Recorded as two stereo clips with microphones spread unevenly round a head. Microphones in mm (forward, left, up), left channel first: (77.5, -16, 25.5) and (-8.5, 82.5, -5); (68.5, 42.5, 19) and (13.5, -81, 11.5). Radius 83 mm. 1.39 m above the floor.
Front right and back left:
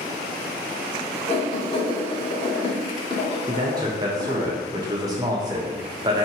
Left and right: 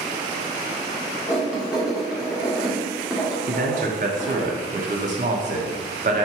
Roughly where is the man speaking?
Behind.